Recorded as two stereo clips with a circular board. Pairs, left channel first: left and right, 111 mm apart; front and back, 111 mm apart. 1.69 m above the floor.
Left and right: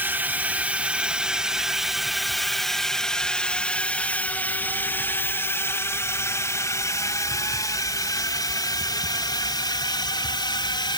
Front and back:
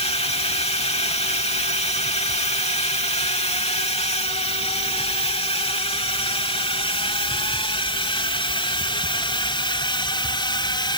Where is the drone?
20° right; by 11.0 s 45° left.